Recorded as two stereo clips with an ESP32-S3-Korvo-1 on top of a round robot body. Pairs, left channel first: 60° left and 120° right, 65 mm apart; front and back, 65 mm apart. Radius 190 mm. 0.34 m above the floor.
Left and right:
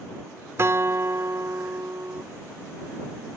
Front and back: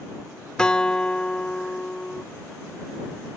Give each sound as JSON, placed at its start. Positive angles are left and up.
{"t": 0.6, "sound": "a guitar", "azimuth_deg": -75}